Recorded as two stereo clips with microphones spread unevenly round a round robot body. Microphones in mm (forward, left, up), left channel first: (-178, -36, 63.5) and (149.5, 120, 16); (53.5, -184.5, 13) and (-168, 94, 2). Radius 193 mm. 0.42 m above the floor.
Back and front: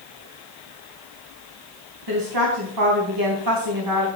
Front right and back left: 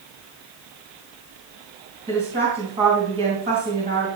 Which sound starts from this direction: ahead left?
A woman speaking, at 2.1 s.